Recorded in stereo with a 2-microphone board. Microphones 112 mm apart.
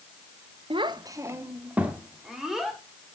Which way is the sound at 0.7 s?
55° right (ahead or behind).